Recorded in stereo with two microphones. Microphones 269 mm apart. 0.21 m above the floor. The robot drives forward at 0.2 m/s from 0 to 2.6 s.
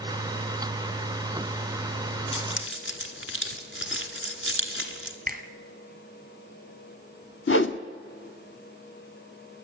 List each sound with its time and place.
2.3 s keys jangling: 55° left (ahead or behind), 1.5 m; by 5.2 s 50° left (ahead or behind), 1.6 m
5.3 s a finger snap: 35° right (ahead or behind), 1.5 m
7.5 s a whoosh: 55° left (ahead or behind), 0.8 m